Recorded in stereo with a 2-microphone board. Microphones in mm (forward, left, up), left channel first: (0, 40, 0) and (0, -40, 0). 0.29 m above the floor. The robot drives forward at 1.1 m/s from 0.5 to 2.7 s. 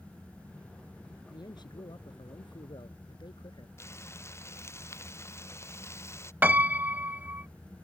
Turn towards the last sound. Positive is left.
turn(degrees=-20)  # may be behind; listen again after turning